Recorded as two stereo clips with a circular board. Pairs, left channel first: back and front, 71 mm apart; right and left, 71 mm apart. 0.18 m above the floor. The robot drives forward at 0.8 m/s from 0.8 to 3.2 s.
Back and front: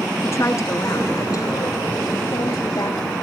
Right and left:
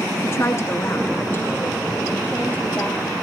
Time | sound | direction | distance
0.2 | a woman speaking | 135° right | 2 m